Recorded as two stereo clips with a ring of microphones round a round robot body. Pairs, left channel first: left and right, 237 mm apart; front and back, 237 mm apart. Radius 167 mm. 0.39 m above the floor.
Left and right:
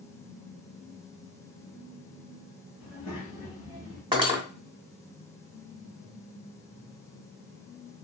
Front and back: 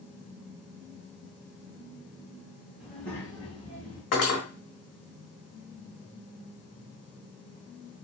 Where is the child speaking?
95° left, 1.7 m; by 4.0 s 55° left, 2.0 m.